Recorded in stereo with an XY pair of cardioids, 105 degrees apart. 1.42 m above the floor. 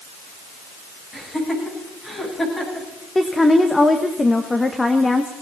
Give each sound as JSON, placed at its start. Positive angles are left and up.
{"t": 1.1, "sound": "laughter", "azimuth_deg": 25, "distance_m": 9.0}
{"t": 3.1, "sound": "a woman speaking", "azimuth_deg": 15, "distance_m": 1.3}